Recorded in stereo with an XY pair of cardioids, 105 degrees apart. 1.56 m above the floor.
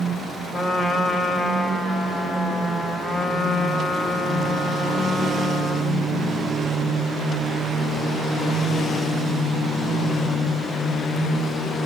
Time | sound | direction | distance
0.5 | a trumpet | 30° left | 1.1 m